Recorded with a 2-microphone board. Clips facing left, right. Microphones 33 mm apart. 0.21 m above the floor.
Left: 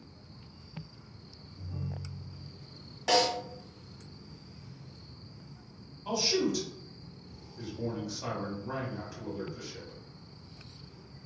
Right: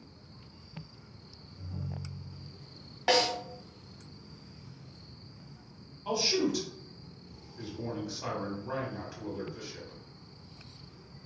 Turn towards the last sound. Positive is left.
turn(degrees=-10)  # may be behind; listen again after turning